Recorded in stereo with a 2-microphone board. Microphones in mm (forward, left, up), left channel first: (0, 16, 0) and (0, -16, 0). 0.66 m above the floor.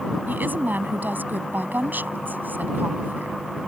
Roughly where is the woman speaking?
Right.